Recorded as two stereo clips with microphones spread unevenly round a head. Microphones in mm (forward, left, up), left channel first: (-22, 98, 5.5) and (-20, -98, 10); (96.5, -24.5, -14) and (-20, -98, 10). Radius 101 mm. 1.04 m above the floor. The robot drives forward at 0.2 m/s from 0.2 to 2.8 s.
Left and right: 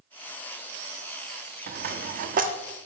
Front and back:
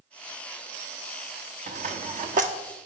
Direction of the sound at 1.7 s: 130° right.